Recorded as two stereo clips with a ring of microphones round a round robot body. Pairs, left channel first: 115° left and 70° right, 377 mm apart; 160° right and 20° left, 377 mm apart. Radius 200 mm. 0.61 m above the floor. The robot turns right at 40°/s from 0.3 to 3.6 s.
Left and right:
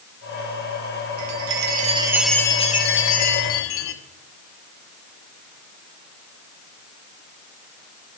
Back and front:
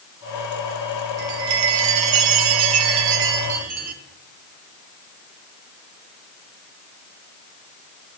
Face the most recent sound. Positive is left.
turn(degrees=75)